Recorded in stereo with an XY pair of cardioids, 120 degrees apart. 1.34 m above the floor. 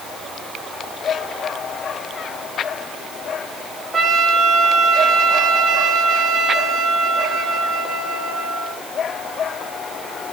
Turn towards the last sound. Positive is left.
turn(degrees=-35)